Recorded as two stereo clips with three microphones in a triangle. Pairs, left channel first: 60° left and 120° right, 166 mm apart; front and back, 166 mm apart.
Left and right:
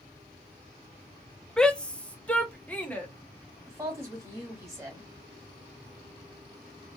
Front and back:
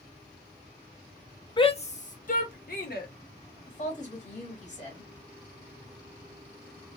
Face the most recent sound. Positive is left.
turn(degrees=-45)